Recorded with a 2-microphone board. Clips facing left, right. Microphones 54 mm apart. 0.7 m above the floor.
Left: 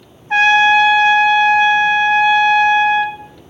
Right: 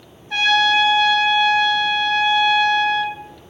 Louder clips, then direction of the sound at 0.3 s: Left 6 dB; 40° left (ahead or behind).